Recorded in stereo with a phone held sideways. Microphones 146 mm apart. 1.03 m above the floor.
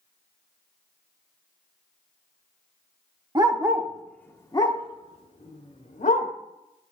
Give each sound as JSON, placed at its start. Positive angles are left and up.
{"t": 3.4, "sound": "a dog barking", "side_deg": -30, "distance_m": 0.7}